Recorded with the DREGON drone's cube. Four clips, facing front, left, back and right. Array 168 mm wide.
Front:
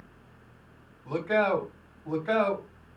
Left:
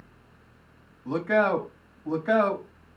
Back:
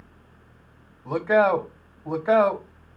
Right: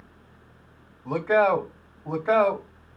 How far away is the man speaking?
About 1.2 m.